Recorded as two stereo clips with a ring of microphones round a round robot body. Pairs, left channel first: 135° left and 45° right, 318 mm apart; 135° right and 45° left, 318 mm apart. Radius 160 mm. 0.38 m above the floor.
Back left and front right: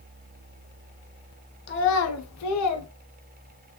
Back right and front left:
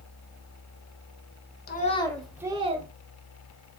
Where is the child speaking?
175° left, 0.7 m; by 2.9 s 110° left, 0.9 m.